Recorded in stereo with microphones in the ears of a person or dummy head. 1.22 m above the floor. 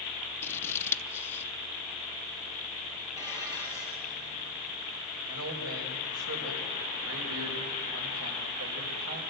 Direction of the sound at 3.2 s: 20° right (ahead or behind).